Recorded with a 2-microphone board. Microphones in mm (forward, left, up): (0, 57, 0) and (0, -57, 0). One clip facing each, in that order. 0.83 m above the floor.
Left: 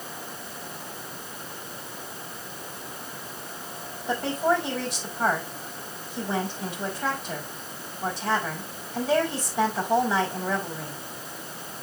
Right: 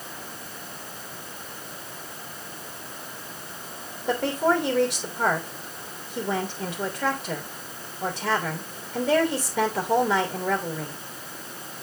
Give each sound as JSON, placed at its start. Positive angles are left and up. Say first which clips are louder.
{"t": 4.1, "sound": "a woman speaking", "louder": "right 1 dB", "side_deg": -80, "distance_m": 3.0}